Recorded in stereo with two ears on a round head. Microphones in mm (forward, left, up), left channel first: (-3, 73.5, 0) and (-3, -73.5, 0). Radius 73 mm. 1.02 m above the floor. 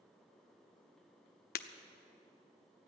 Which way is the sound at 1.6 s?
60° left (ahead or behind).